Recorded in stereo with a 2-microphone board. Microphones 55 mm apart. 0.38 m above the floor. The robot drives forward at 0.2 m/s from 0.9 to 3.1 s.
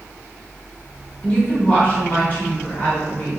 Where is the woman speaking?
30° left (ahead or behind), 0.9 m; by 3.4 s 25° left (ahead or behind), 1.0 m.